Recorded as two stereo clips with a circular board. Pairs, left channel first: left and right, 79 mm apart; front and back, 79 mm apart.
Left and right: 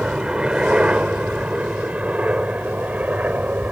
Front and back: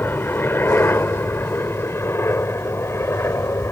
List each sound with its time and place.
0.0 s a helicopter: 20° right; by 3.7 s 30° right